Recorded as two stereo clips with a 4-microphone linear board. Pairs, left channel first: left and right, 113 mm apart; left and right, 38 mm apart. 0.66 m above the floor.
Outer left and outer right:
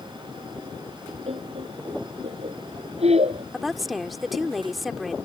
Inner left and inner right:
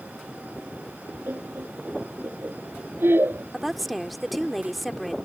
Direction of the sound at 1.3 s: 60° right (ahead or behind).